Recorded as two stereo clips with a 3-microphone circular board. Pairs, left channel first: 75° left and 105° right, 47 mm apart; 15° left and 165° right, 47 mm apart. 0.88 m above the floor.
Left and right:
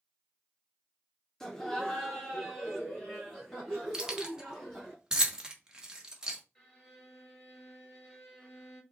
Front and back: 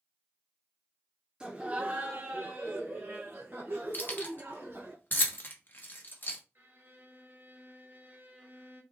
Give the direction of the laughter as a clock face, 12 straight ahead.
7 o'clock.